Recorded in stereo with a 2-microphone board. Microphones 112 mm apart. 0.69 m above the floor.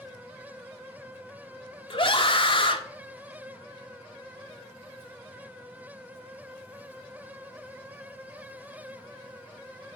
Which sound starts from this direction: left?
A scream, at 1.9 s.